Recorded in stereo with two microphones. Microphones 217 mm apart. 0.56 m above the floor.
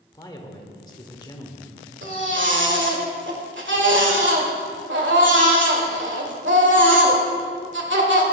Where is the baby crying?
60° right (ahead or behind), 1.7 m.